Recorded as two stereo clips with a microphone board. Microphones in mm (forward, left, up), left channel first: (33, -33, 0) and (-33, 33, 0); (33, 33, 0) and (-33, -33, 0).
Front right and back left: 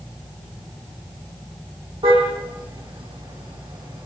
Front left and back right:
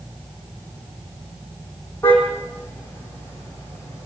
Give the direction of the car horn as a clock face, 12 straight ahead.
8 o'clock.